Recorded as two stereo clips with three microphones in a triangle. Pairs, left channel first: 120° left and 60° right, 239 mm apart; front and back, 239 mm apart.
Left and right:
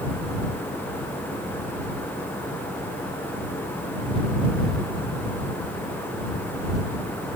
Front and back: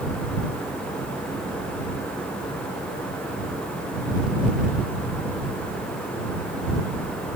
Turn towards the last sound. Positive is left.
No sound to turn to.